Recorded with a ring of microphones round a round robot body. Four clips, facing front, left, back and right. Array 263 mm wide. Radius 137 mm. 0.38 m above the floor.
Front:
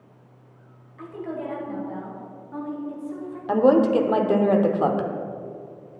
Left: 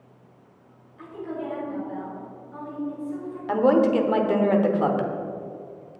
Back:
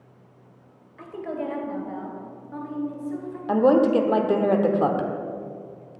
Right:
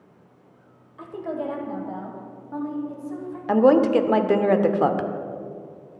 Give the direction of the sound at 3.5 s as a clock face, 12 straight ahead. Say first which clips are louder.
Right 3 dB, front 1 dB; 3 o'clock.